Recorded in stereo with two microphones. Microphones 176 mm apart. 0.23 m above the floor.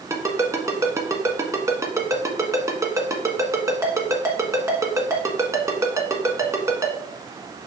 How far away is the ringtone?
About 1.3 m.